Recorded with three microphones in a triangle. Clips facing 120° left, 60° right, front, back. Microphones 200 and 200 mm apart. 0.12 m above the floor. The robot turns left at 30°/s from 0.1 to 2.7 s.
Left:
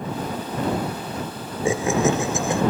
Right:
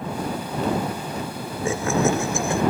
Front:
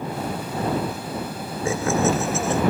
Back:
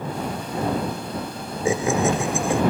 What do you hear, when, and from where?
1.6 s laughter: 150° left; by 2.6 s 125° left